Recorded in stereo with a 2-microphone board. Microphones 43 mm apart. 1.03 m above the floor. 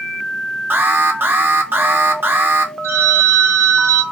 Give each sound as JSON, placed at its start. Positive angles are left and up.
{"t": 0.7, "sound": "an alarm", "side_deg": -55, "distance_m": 0.6}
{"t": 2.8, "sound": "a phone ringing", "side_deg": -85, "distance_m": 0.9}